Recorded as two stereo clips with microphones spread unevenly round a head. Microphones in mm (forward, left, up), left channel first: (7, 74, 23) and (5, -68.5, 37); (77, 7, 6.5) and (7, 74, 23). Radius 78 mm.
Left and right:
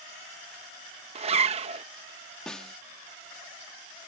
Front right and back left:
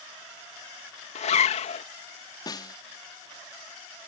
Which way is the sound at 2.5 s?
5° left.